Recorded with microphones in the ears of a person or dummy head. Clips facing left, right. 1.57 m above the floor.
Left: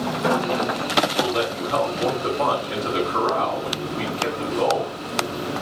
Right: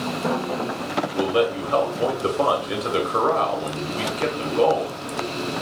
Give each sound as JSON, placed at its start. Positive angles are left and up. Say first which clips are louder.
{"t": 1.1, "sound": "a man speaking", "louder": "right 3 dB", "side_deg": -45, "distance_m": 1.3}